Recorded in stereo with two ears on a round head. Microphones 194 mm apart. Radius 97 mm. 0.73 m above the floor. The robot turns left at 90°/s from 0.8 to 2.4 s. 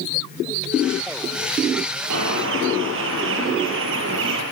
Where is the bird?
90° right, 7 m; by 4.4 s 65° right (ahead or behind), 7 m.